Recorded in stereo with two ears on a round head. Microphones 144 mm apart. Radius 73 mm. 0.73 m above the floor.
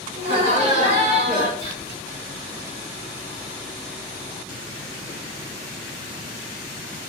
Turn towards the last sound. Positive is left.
turn(degrees=-35)  # may be behind; listen again after turning